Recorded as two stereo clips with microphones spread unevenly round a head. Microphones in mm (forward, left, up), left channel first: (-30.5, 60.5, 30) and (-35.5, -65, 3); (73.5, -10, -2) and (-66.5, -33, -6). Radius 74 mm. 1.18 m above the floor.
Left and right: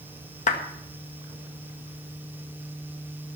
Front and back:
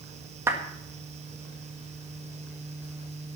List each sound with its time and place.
0.5 s a clap: 115° left, 1.7 m